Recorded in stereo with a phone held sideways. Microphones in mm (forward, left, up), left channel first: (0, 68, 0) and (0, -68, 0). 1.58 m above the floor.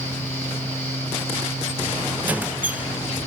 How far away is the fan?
About 3 m.